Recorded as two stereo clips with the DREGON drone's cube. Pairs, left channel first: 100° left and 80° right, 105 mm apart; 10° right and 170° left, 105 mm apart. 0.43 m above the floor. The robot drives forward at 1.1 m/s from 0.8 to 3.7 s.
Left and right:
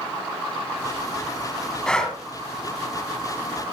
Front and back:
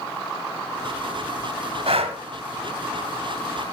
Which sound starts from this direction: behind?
Breathing, at 1.9 s.